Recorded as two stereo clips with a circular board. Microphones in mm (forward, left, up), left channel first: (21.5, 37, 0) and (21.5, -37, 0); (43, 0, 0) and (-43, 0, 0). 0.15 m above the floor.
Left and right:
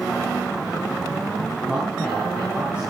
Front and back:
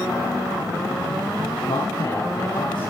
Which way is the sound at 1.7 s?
20° right.